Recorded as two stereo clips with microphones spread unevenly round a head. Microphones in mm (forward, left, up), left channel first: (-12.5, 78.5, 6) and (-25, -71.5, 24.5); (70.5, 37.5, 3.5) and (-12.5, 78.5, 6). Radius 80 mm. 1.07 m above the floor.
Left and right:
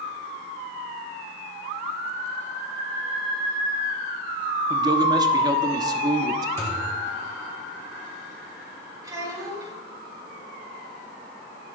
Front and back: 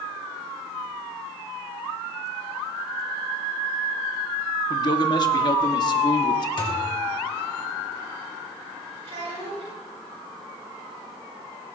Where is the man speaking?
30° right, 1.0 m.